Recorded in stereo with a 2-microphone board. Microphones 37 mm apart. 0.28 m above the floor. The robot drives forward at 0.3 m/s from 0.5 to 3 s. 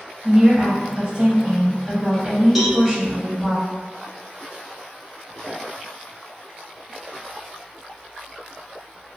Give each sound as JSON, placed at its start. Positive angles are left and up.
{"t": 0.2, "sound": "a woman speaking", "side_deg": -35, "distance_m": 1.0}
{"t": 2.5, "sound": "a cowbell", "side_deg": -5, "distance_m": 0.7}